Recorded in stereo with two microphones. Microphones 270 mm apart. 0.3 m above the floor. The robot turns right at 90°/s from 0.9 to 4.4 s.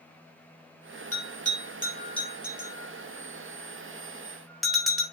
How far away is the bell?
About 3.5 m.